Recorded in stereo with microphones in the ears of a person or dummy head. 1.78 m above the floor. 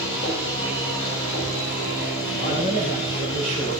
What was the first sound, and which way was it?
A machine running, 70° left (ahead or behind).